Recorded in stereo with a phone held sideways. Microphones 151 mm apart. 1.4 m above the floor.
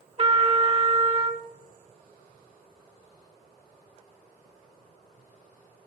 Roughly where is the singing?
No singing in this recording.